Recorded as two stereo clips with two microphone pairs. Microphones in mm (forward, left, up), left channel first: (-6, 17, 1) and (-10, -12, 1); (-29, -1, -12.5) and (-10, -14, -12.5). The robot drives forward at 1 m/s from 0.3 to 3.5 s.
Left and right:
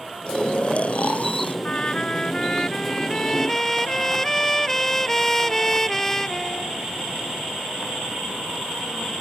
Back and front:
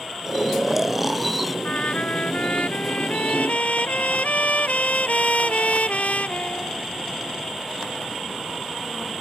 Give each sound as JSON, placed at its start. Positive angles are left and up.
{"t": 0.3, "sound": "snoring", "azimuth_deg": 35}
{"t": 1.6, "sound": "a trumpet", "azimuth_deg": 135}